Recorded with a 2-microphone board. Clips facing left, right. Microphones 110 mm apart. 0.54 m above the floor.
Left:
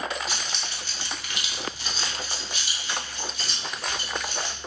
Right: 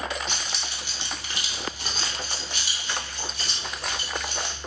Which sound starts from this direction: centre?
Keys jangling, at 0.3 s.